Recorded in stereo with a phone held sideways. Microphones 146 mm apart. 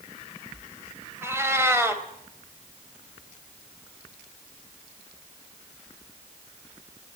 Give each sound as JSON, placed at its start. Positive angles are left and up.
{"t": 1.2, "sound": "a cat meowing", "side_deg": -20, "distance_m": 3.5}